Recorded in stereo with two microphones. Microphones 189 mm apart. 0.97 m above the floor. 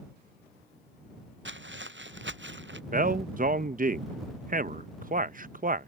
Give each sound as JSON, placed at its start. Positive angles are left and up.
{"t": 1.4, "sound": "footsteps", "side_deg": -80}
{"t": 2.9, "sound": "a man speaking", "side_deg": -45}